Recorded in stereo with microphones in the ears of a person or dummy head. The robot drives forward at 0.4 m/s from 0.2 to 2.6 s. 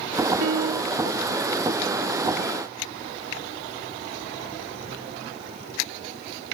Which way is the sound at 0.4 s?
70° right (ahead or behind).